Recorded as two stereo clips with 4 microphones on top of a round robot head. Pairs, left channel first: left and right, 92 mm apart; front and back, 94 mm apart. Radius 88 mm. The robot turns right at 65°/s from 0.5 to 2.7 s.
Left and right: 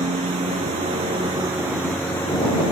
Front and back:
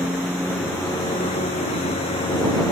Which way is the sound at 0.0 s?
90° right.